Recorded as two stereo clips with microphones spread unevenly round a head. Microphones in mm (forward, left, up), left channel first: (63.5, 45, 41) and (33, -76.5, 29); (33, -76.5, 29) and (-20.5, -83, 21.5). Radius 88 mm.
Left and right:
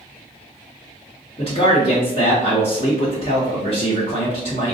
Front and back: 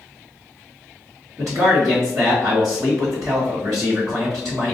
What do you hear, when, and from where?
1.4 s a man speaking: 130° left, 1.2 m